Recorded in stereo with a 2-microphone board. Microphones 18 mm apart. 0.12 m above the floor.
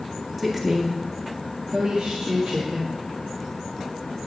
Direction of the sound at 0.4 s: 5° left (ahead or behind).